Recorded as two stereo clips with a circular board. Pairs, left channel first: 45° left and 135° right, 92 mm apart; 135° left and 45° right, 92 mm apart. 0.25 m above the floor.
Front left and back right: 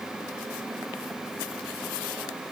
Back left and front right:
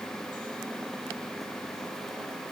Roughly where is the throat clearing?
I don't hear throat clearing.